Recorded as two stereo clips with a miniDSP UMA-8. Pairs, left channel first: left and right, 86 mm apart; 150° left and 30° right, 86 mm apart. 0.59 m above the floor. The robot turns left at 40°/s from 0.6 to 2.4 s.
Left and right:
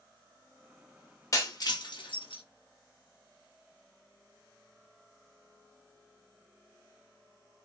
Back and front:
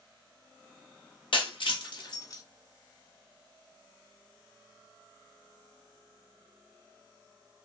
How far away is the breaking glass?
About 0.6 m.